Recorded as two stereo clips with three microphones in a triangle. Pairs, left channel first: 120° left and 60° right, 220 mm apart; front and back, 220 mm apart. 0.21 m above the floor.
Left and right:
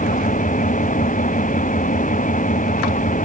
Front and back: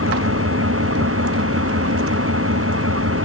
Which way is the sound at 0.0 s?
175° left.